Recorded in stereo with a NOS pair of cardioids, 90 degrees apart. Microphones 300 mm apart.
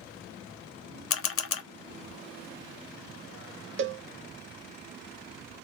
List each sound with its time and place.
1.1 s a camera shutter: 50° left, 0.7 m
3.8 s a cowbell: 45° right, 0.6 m